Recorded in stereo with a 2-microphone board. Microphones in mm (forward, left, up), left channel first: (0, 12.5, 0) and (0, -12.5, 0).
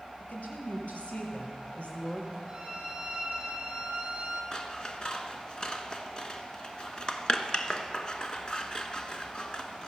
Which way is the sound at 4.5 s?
35° left (ahead or behind).